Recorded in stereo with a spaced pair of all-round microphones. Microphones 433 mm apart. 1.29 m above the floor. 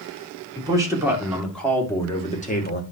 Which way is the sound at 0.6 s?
10° right (ahead or behind).